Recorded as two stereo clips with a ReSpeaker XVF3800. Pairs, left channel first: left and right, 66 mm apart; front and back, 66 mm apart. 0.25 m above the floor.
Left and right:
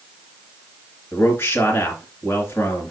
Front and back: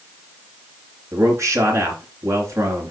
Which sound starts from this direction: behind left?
A man speaking, at 1.1 s.